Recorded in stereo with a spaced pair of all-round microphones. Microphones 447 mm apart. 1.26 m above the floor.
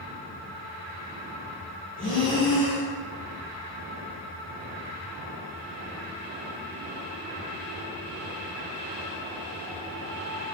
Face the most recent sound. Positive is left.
turn(degrees=25)  # may be behind; listen again after turning